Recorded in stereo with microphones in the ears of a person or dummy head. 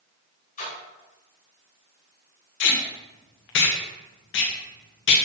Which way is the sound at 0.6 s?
40° left (ahead or behind).